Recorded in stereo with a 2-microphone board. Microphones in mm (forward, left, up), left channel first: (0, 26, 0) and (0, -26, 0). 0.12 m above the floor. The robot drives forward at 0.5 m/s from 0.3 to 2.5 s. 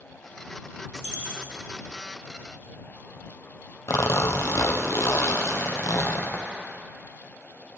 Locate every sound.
0.9 s a dropped coin: 55° right (ahead or behind), 3.5 m; by 1.6 s 60° right (ahead or behind), 3 m
3.9 s a zipper: 70° left (ahead or behind), 1.1 m